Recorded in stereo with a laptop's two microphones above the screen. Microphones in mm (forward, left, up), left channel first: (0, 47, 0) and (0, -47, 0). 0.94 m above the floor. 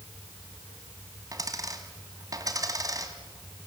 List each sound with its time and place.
1.3 s a dropped coin: 40° right (ahead or behind), 2.0 m